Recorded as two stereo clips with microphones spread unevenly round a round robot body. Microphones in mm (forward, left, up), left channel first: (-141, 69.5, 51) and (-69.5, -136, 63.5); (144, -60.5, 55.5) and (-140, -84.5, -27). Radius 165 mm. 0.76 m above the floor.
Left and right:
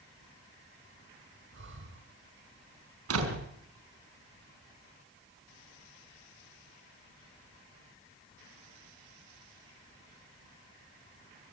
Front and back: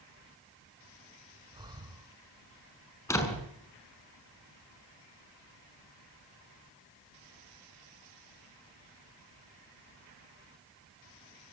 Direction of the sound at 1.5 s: 100° right.